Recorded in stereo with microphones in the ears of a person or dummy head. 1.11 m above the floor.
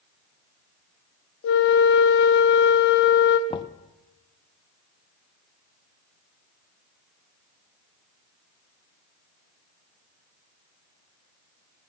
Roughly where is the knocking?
Left.